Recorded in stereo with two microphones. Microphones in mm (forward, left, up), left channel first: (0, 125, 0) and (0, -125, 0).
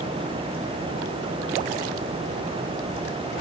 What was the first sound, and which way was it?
Only background noise.